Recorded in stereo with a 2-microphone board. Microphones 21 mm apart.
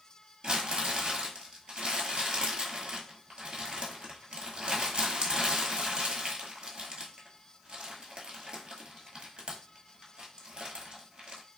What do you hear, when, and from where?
0.4 s crumpling: 55° right (ahead or behind), 0.9 m